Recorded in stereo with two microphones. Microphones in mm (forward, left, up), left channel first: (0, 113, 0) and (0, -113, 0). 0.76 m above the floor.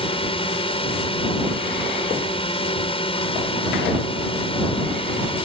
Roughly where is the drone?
Left.